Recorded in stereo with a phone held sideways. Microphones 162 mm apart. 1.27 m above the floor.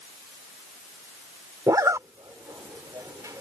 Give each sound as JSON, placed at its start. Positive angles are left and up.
{"t": 1.7, "sound": "a zipper", "side_deg": -20}